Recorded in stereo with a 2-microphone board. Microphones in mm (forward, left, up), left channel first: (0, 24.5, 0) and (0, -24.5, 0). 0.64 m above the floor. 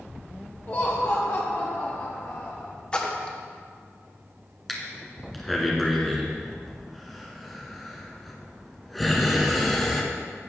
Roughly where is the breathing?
Centre.